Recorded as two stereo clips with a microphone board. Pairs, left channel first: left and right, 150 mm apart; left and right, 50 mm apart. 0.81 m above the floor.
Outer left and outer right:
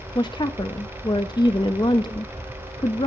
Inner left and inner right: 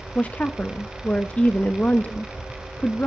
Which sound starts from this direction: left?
A woman speaking, at 0.1 s.